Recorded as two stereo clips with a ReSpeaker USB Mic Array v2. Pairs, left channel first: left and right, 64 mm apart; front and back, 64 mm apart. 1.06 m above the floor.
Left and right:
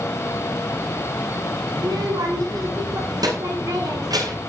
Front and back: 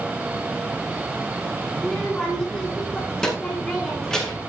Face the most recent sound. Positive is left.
turn(degrees=-80)